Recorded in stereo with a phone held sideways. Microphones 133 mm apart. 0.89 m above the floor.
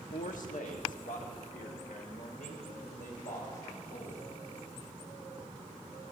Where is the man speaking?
75° left (ahead or behind), 1.0 m; by 4.2 s 80° left, 4.5 m.